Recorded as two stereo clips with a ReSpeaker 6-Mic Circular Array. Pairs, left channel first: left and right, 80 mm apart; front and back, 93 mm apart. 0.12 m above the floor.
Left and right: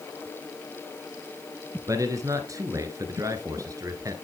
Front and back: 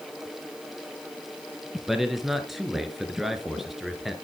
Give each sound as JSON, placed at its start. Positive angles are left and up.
{"t": 1.9, "sound": "a man speaking", "azimuth_deg": -95, "distance_m": 1.6}